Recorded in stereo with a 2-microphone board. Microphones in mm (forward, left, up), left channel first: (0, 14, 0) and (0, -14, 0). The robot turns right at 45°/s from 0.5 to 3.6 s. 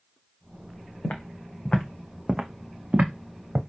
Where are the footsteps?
85° left, 1.4 m; by 3.6 s 55° right (ahead or behind), 1.2 m.